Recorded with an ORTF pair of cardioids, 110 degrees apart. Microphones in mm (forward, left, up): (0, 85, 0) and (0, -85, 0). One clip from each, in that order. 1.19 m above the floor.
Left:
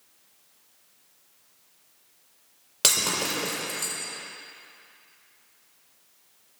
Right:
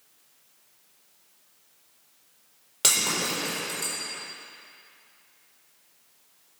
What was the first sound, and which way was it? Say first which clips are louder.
Breaking glass: left 1 dB; 15° left.